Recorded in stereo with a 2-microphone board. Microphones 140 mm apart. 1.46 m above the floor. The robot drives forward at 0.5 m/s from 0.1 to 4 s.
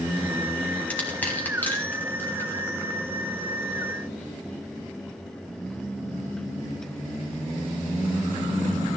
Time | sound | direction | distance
0.9 | crushing | 10° left (ahead or behind) | 3 m